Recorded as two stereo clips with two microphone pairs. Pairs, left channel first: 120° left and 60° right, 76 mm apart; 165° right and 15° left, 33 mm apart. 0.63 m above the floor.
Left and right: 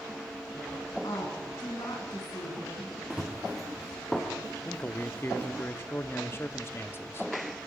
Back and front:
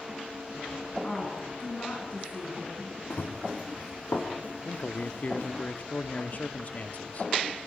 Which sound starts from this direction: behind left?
A woman speaking, at 1.0 s.